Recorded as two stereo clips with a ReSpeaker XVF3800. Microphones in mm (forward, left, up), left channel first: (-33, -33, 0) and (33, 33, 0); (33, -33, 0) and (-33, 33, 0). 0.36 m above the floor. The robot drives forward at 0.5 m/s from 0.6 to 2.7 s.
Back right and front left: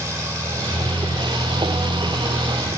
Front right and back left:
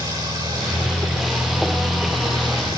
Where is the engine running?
100° left, 7.5 m; by 2.8 s 110° left, 7.5 m.